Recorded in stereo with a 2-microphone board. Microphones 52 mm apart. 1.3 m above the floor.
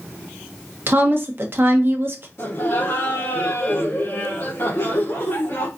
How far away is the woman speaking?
About 1.1 m.